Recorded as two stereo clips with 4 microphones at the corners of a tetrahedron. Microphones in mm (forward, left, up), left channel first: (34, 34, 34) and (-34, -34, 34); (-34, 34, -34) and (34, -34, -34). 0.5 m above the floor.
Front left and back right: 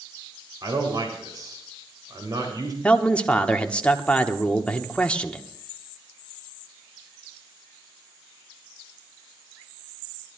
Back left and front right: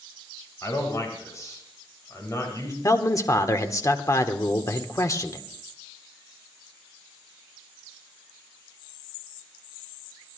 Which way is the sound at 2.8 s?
115° left.